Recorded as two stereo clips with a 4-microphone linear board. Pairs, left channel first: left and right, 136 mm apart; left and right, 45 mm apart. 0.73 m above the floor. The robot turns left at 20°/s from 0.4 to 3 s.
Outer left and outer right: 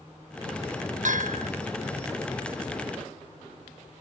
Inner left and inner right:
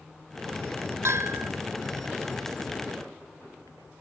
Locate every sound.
1.1 s a bell: 70° right (ahead or behind), 0.8 m